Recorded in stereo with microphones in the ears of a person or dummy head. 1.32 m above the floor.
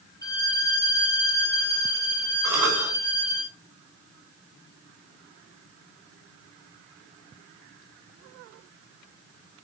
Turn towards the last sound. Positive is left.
turn(degrees=-15)  # may be behind; listen again after turning